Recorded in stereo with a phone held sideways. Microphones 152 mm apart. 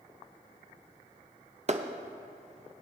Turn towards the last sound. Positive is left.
turn(degrees=-50)  # may be behind; listen again after turning